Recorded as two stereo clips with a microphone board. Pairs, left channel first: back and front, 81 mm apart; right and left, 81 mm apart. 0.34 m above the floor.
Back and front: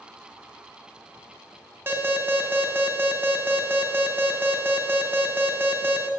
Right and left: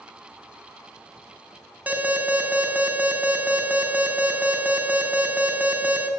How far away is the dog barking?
I don't hear a dog barking.